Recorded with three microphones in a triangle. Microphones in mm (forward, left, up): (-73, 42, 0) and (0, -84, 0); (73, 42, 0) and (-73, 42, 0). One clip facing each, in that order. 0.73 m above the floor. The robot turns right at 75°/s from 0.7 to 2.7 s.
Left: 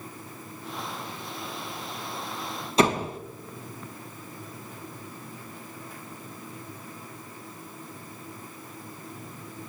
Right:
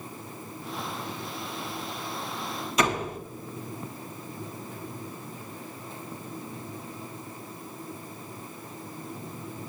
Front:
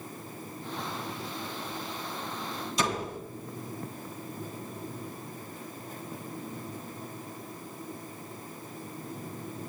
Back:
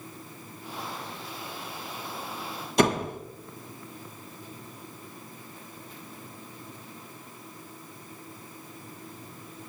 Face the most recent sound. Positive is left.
turn(degrees=175)